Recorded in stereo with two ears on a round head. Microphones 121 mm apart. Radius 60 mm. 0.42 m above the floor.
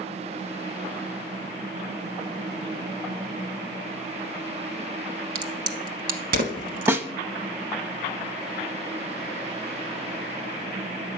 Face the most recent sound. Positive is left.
turn(degrees=-20)  # may be behind; listen again after turning